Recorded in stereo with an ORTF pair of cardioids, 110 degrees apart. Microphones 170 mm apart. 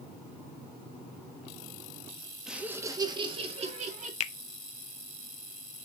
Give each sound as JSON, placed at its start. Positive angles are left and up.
{"t": 2.5, "sound": "laughter", "azimuth_deg": -5, "distance_m": 1.7}
{"t": 4.2, "sound": "a finger snap", "azimuth_deg": 45, "distance_m": 0.6}